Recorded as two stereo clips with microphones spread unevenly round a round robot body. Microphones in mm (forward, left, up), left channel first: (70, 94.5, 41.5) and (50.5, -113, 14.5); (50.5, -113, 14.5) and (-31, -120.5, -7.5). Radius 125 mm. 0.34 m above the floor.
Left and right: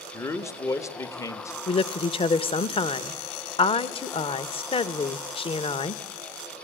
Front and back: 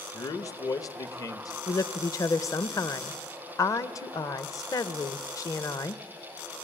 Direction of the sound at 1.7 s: 40° left.